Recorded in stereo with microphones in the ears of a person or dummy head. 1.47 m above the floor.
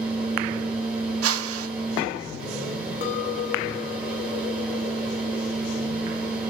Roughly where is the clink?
Left.